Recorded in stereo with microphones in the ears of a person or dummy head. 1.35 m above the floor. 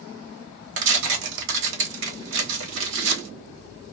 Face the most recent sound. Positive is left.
turn(degrees=-70)  # may be behind; listen again after turning